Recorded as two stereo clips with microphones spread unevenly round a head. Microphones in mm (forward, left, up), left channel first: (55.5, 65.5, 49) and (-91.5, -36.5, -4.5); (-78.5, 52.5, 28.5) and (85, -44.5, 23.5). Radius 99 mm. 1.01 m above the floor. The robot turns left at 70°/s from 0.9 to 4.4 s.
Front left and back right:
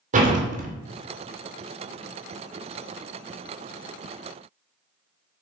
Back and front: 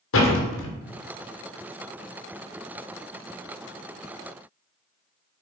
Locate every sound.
0.1 s a door slam: 170° left, 3 m